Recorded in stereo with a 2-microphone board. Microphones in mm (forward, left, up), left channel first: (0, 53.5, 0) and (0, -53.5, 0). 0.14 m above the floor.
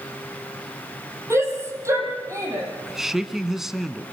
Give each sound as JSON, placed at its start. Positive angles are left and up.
{"t": 1.3, "sound": "a shout", "side_deg": -25, "distance_m": 6.0}
{"t": 2.8, "sound": "a man speaking", "side_deg": -5, "distance_m": 1.1}